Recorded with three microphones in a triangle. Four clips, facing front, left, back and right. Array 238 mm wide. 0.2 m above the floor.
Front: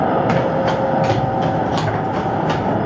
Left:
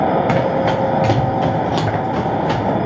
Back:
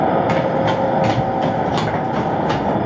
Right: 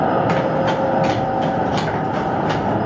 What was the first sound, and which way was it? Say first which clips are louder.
Running footsteps: left 2 dB, even; 65° left.